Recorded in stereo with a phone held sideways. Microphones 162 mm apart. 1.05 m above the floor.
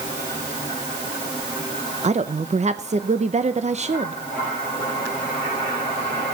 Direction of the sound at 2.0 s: 40° right (ahead or behind).